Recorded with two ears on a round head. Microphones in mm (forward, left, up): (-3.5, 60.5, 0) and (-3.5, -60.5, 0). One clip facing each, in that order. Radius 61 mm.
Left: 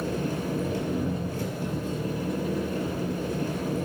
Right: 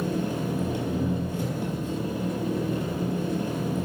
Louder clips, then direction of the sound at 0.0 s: Right 1 dB; 20° right (ahead or behind).